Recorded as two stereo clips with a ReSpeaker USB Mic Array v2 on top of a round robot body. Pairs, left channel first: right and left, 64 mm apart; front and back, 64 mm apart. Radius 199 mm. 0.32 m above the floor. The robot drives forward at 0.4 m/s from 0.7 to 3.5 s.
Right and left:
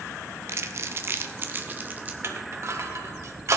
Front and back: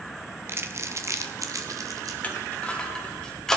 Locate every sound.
0.5 s crumpling: 130° left, 0.9 m; by 2.1 s 150° left, 1.3 m
2.2 s crushing: 60° left, 2 m; by 3.6 s 80° left, 1.9 m